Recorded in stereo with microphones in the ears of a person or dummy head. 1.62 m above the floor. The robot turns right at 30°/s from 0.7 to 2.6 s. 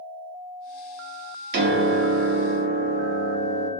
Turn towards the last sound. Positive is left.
turn(degrees=-90)